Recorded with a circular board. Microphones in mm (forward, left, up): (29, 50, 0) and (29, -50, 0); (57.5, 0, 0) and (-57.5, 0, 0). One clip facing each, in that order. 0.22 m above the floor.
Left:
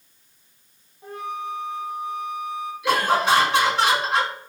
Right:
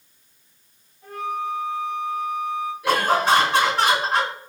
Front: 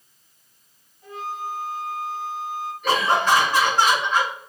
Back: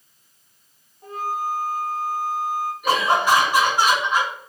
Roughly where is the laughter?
Right.